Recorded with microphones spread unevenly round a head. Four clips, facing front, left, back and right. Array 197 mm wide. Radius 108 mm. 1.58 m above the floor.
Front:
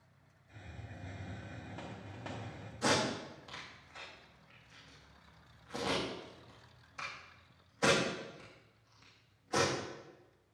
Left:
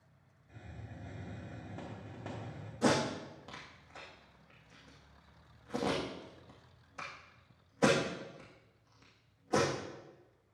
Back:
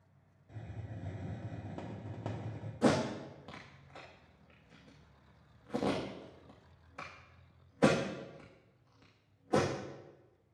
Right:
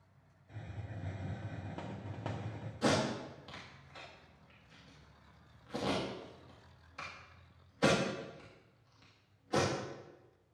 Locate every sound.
0.5 s a hiss: 135° right, 1.3 m
2.8 s tape being pulled: 155° left, 2 m